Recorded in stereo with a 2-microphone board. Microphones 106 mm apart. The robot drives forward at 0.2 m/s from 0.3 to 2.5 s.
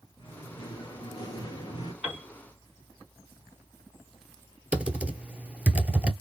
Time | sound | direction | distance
0.2 | singing | 45° left (ahead or behind) | 2 m
2.0 | a piano | 10° right (ahead or behind) | 1.3 m
4.7 | typing on a keyboard | 15° right (ahead or behind) | 0.7 m